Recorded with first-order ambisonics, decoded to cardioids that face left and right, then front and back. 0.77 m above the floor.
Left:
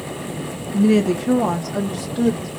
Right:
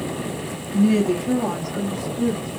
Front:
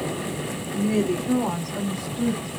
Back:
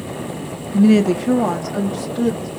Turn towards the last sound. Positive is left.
turn(degrees=135)